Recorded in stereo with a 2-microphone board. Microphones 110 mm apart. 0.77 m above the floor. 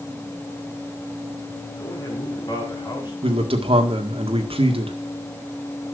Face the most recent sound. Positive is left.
turn(degrees=-60)  # may be behind; listen again after turning